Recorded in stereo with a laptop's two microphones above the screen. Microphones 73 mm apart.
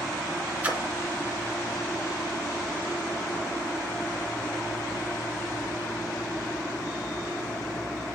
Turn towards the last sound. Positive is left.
turn(degrees=-20)  # may be behind; listen again after turning